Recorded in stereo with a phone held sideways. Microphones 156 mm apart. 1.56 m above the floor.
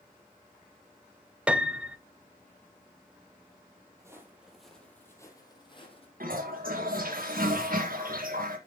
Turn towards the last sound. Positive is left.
turn(degrees=-65)  # may be behind; listen again after turning